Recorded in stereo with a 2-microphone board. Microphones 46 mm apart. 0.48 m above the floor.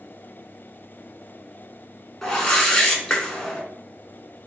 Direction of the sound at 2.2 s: 10° left (ahead or behind).